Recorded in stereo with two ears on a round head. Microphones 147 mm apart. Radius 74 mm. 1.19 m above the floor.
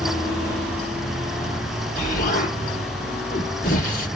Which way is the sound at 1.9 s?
55° left (ahead or behind).